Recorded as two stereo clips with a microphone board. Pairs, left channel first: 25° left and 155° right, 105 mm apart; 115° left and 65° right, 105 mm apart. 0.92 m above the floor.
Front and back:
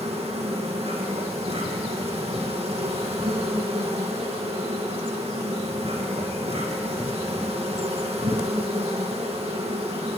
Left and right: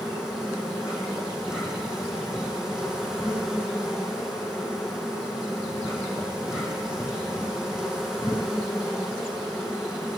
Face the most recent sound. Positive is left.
turn(degrees=-150)